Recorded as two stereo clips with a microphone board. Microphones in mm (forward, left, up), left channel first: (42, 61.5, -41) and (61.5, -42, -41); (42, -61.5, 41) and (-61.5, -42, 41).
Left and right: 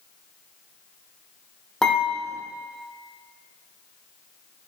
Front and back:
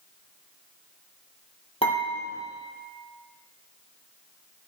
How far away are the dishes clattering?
About 4 m.